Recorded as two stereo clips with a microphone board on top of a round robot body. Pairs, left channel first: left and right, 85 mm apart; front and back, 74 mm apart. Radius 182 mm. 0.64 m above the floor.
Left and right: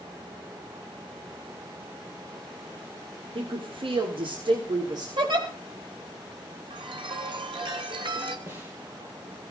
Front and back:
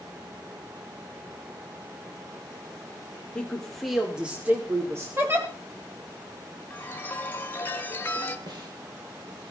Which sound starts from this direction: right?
A woman speaking, at 3.4 s.